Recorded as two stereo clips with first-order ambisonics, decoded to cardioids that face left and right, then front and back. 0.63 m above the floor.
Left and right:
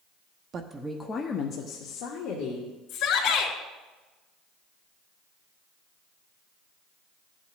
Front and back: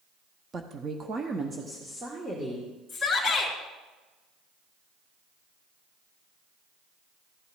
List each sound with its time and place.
0.5 s a woman speaking: 125° right, 0.6 m; by 2.7 s 105° left, 1.6 m
2.9 s a shout: 95° left, 2.5 m